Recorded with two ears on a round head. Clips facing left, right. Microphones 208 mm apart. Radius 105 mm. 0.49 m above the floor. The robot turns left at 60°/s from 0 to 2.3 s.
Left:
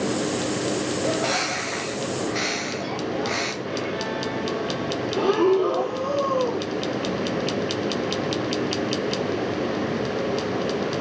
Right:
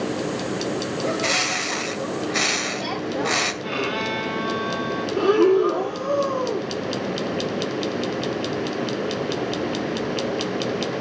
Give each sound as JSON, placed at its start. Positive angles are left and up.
{"t": 1.0, "sound": "a bird", "azimuth_deg": -20, "distance_m": 2.0}
{"t": 3.6, "sound": "a violin", "side_deg": -80, "distance_m": 1.8}
{"t": 5.2, "sound": "breathing", "side_deg": -20, "distance_m": 6.5}